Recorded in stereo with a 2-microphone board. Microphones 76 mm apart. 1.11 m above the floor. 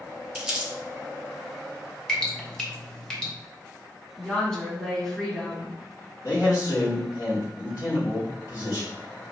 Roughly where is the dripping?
Centre.